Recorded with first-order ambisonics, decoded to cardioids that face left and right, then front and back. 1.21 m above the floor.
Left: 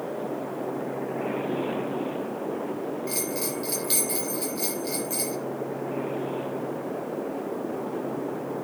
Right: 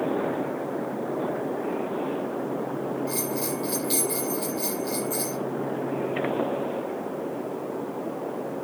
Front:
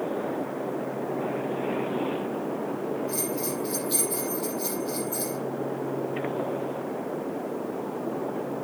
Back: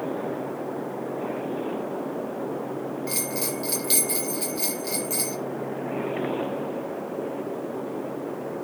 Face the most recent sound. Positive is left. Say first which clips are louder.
# right 1 dB, back 1 dB
turn(degrees=165)